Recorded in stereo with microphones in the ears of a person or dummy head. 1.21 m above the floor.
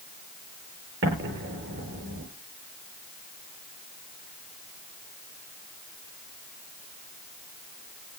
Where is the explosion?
60° right (ahead or behind), 8 m.